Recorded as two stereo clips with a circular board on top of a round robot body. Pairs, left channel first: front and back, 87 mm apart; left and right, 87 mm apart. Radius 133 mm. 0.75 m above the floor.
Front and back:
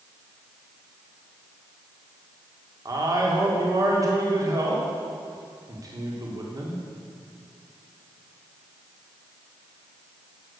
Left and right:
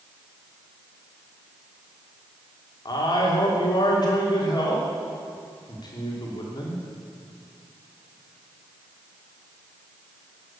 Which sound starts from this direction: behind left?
A man speaking, at 2.9 s.